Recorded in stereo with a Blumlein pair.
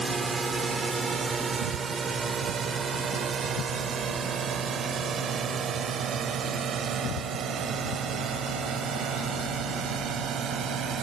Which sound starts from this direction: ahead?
A drone, at 0.0 s.